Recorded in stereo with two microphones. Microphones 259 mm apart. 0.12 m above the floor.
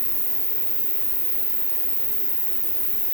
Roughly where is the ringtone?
I don't hear a ringtone.